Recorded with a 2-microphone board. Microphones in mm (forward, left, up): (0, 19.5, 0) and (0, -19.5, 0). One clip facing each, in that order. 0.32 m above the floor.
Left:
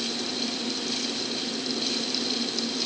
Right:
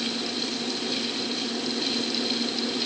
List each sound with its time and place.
Only background noise.